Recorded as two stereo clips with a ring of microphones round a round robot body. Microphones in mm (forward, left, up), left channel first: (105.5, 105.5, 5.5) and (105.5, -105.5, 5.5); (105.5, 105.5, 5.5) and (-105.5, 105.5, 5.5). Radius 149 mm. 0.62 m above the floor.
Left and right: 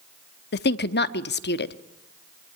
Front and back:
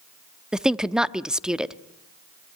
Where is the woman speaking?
95° left, 0.9 m.